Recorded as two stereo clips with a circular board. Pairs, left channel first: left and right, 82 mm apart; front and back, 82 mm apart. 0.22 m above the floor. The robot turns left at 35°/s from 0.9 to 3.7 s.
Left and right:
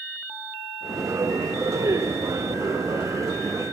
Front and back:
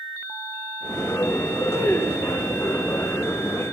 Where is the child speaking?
110° right, 4.5 m; by 2.6 s 140° right, 4.5 m.